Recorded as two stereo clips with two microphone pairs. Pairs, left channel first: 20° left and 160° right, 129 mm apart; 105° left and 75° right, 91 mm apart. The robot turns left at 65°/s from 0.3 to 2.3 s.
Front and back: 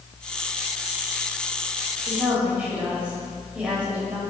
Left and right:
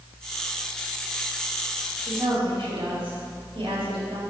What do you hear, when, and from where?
2.0 s a woman speaking: 60° right, 5.5 m; by 4.2 s 80° right, 5.5 m